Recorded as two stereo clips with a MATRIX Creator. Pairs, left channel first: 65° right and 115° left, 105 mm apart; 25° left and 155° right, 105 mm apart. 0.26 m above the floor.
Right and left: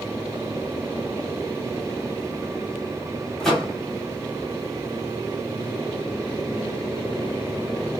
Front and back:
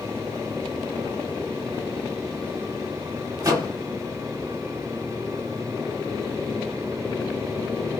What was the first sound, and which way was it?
A microwave, 155° right.